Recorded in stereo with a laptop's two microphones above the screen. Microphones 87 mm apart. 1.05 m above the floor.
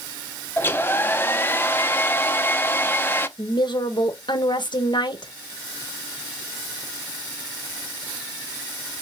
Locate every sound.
0.6 s a hair dryer: 25° left (ahead or behind), 0.7 m
3.4 s a woman speaking: 60° left (ahead or behind), 1.0 m